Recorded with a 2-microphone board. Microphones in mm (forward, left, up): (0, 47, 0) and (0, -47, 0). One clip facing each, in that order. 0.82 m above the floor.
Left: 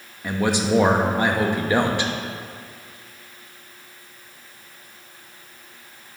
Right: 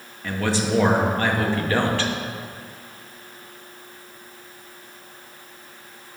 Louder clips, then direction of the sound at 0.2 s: Left 2 dB; 15° left (ahead or behind).